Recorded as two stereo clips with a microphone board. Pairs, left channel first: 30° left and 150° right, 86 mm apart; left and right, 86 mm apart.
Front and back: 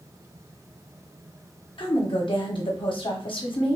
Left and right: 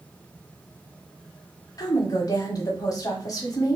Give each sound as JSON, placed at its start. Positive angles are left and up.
{"t": 1.8, "sound": "a woman speaking", "azimuth_deg": 40, "distance_m": 1.0}